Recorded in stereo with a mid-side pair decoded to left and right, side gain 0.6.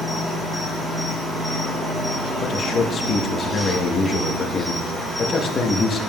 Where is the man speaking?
35° left, 0.9 m.